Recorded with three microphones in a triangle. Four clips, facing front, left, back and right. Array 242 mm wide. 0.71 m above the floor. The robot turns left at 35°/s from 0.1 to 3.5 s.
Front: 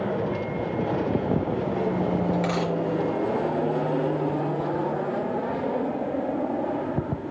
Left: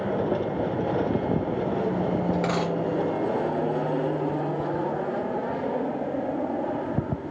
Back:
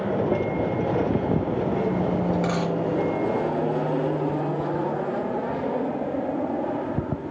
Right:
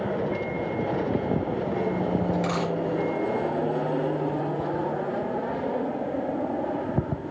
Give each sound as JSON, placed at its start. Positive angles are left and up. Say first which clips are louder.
{"t": 2.3, "sound": "a dropped coin", "louder": "left 1 dB, back 1 dB", "azimuth_deg": 80, "distance_m": 4.5}